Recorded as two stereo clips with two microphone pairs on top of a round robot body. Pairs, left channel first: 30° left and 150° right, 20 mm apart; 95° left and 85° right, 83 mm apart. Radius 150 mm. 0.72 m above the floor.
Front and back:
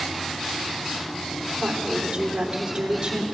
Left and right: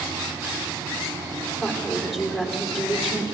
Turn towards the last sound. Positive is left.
turn(degrees=-175)